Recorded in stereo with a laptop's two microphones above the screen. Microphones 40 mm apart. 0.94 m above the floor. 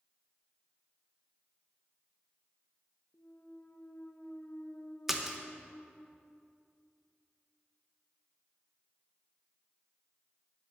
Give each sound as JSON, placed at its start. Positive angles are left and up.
{"t": 3.1, "sound": "a clunk", "side_deg": 45, "distance_m": 0.5}
{"t": 5.1, "sound": "a splash", "side_deg": -5, "distance_m": 0.7}